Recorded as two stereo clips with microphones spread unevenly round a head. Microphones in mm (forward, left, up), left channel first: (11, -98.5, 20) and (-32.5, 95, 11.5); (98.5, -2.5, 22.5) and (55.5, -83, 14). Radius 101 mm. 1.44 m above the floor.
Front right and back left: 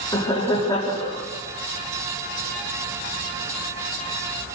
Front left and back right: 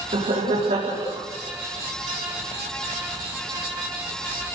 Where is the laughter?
150° right, 4 m.